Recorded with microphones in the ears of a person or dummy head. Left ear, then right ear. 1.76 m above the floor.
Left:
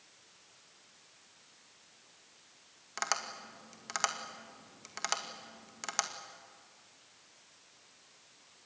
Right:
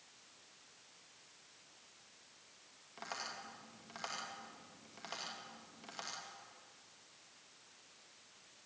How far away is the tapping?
About 2 m.